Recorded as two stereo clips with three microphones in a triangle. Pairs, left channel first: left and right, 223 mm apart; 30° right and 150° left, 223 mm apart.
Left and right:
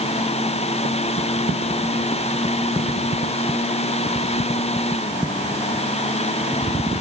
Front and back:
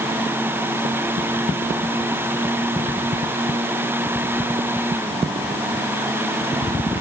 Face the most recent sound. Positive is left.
No sound to turn to.